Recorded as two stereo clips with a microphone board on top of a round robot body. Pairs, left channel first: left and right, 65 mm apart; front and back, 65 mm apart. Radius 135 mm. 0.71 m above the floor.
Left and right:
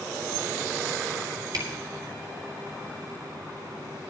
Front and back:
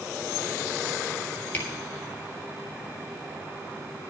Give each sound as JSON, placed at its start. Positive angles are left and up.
{"t": 1.5, "sound": "a camera shutter", "azimuth_deg": -65, "distance_m": 3.5}